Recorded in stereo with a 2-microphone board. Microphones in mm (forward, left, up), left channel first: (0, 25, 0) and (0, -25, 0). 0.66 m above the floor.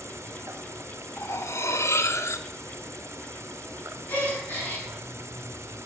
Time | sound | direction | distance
0.0 | an insect | 65° right (ahead or behind) | 0.8 m
1.2 | cutlery clinking | 65° left (ahead or behind) | 0.6 m
4.1 | a gasp | 40° left (ahead or behind) | 5.5 m